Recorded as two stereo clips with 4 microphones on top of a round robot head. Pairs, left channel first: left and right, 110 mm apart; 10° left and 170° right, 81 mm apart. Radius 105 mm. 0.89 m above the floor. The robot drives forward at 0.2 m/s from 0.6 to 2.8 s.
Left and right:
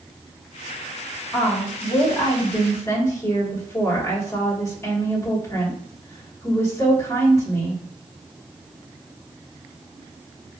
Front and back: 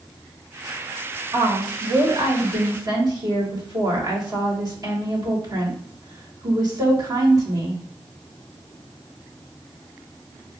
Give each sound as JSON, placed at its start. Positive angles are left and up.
{"t": 1.3, "sound": "a woman speaking", "azimuth_deg": 150, "distance_m": 1.3}